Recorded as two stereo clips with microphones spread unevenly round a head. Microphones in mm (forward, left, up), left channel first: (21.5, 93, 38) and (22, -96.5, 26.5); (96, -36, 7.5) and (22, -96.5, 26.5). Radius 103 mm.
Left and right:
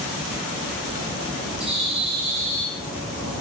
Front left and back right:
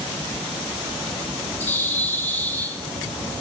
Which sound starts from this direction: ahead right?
A bird, at 1.6 s.